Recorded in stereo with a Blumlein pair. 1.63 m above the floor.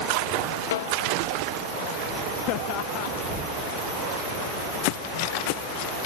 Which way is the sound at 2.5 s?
45° left.